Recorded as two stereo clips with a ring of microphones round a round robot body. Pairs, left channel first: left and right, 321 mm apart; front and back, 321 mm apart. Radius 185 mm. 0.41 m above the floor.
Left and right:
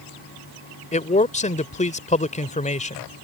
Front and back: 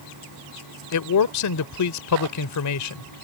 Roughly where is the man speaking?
Ahead left.